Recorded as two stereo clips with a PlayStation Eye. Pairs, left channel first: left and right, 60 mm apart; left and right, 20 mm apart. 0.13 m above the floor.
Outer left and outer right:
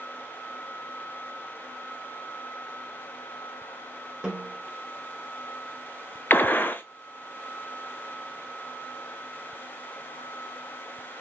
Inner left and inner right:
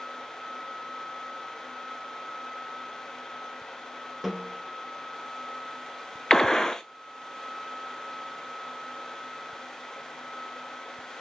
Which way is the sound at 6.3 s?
30° left (ahead or behind).